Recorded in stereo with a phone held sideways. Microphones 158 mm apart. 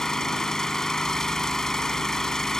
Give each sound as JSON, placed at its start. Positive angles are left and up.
{"t": 0.0, "sound": "an engine running", "side_deg": 5}